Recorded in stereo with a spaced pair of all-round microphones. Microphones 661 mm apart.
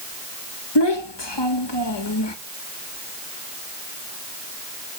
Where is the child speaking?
40° left (ahead or behind), 1.0 m.